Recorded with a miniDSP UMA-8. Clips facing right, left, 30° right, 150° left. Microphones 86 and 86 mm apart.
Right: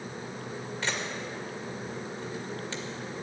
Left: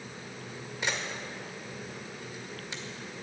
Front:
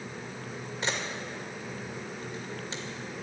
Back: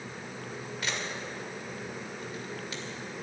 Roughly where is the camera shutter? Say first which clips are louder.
Even, front 3 dB; ahead.